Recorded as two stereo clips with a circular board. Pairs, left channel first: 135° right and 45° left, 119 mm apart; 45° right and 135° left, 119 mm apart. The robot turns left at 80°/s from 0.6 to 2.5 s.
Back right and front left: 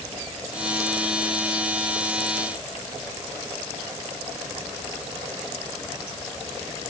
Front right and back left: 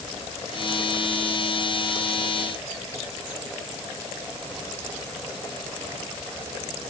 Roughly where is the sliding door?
I don't hear a sliding door.